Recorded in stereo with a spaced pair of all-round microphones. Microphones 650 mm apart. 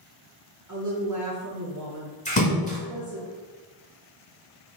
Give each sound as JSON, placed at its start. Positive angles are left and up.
{"t": 0.7, "sound": "a woman speaking", "side_deg": -30, "distance_m": 0.6}
{"t": 2.2, "sound": "a splash", "side_deg": 10, "distance_m": 0.9}